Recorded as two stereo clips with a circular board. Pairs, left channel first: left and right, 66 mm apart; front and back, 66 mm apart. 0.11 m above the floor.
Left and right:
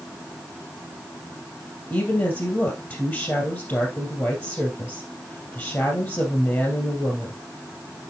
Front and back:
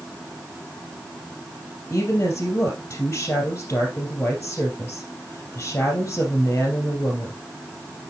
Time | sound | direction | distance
1.9 | a woman speaking | 50° left | 2.5 m